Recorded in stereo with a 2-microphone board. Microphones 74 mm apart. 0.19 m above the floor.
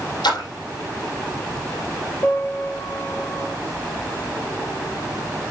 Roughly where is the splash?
Left.